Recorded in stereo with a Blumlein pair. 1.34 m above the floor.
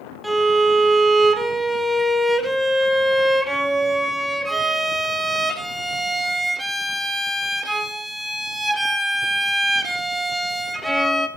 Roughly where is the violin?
Ahead.